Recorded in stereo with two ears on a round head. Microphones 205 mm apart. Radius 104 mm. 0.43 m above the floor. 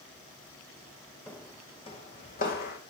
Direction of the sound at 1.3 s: 5° left (ahead or behind).